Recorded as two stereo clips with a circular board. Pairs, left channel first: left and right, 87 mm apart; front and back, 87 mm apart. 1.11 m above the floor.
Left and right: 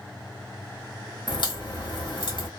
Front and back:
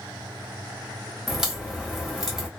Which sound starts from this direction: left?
A crack, at 1.3 s.